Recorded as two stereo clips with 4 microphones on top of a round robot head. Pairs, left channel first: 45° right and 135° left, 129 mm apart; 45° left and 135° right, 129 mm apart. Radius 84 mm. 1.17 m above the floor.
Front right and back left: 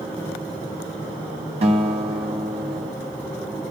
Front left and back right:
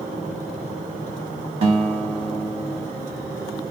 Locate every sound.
1.6 s a guitar: straight behind, 0.8 m